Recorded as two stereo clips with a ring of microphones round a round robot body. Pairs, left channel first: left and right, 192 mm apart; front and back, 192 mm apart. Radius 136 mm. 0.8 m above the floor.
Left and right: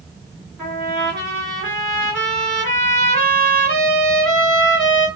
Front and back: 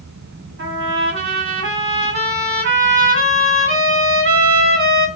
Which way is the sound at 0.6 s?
175° left.